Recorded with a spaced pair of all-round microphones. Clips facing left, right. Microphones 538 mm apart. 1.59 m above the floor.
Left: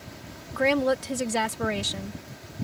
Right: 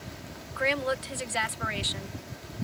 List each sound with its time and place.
0.5 s a woman speaking: 65° left (ahead or behind)